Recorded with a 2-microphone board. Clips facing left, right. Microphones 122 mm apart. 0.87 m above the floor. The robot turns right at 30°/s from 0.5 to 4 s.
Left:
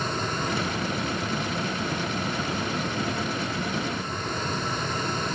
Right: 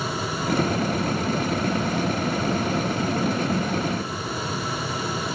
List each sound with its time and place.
Only background noise.